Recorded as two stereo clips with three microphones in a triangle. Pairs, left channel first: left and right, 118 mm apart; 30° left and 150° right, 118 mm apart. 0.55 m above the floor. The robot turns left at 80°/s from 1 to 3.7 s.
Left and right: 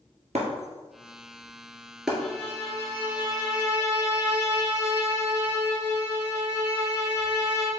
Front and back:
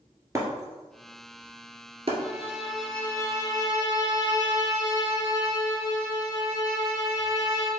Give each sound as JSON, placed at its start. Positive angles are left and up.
{"t": 0.3, "sound": "breaking glass", "azimuth_deg": -90, "distance_m": 1.4}
{"t": 2.2, "sound": "a violin", "azimuth_deg": 165, "distance_m": 1.1}